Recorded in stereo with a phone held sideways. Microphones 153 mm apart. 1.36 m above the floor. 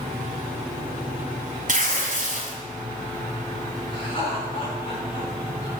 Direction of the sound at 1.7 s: 60° right (ahead or behind).